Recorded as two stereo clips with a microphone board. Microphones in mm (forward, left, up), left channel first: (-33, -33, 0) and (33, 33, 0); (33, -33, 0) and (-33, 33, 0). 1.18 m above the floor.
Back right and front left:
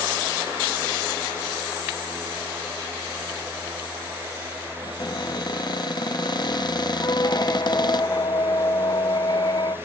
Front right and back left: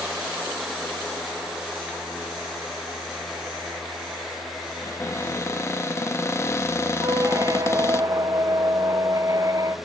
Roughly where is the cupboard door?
Right.